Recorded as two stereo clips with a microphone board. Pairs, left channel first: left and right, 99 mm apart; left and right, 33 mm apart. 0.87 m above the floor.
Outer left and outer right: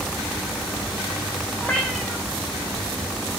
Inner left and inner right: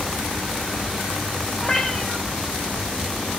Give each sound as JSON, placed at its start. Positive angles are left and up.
{"t": 1.6, "sound": "a cat meowing", "side_deg": 5, "distance_m": 1.5}